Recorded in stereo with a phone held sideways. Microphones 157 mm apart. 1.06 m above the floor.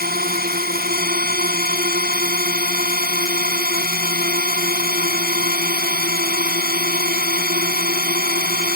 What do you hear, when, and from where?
0.0 s a drone: 85° right